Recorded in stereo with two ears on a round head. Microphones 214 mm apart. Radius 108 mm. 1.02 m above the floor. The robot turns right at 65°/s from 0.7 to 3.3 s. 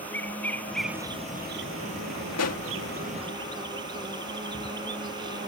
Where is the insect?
175° left; by 5.5 s 20° right.